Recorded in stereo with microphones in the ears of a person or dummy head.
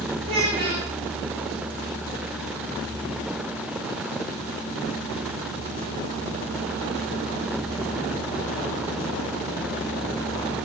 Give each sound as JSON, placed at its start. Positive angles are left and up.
{"t": 0.2, "sound": "a child speaking", "side_deg": -35, "distance_m": 0.8}